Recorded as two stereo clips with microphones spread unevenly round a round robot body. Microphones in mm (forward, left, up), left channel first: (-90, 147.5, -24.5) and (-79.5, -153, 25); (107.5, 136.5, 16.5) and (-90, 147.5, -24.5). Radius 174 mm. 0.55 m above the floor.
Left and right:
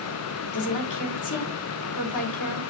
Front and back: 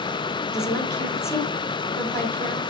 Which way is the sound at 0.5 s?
80° left.